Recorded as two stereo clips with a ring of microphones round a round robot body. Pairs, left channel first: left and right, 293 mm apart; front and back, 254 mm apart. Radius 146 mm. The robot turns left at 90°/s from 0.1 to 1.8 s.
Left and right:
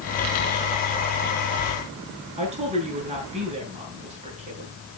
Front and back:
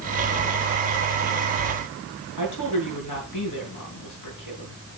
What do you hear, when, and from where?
2.4 s a woman speaking: 20° right, 6.5 m